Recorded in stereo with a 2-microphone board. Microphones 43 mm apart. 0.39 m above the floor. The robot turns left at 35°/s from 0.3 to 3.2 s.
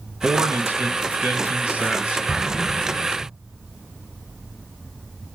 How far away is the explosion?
About 3 m.